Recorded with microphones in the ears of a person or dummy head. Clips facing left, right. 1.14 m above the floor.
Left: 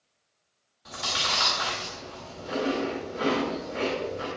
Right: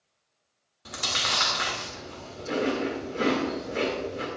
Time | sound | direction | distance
0.8 | chewing | 45° right (ahead or behind) | 2.5 m